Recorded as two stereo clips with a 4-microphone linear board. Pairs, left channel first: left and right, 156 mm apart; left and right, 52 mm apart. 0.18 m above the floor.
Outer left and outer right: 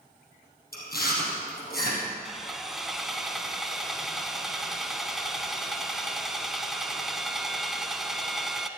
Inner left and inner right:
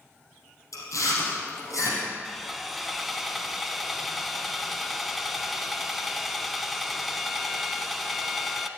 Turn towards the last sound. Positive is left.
turn(degrees=0)  # may be behind; listen again after turning